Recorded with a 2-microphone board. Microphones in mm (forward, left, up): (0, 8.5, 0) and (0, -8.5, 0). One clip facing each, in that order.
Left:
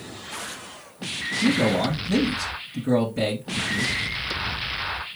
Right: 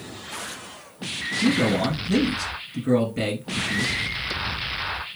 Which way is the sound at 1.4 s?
10° right (ahead or behind).